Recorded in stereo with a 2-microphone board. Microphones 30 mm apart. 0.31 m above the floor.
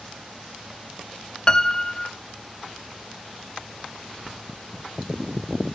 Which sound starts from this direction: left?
A piano, at 1.5 s.